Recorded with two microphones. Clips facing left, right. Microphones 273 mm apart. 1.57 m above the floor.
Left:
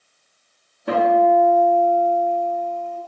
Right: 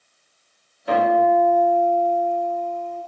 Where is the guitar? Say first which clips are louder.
Left 2 dB; 60° left (ahead or behind), 1.0 m.